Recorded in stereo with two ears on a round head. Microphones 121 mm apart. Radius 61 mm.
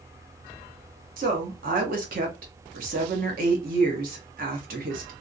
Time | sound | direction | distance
1.2 | a woman speaking | 70° right (ahead or behind) | 1.0 m